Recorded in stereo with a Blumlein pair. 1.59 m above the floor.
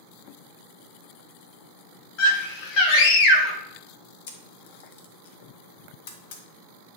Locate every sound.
2.2 s a scream: 40° left, 3 m; by 3.6 s 35° left, 1.7 m
4.3 s a camera shutter: 50° left, 1.4 m